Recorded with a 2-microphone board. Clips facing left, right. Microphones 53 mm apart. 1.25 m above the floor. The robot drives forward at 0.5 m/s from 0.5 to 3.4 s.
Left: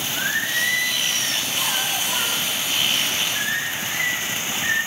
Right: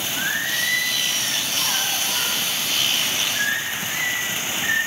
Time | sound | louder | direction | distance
0.2 | singing | left 1 dB | centre (ahead or behind) | 3 m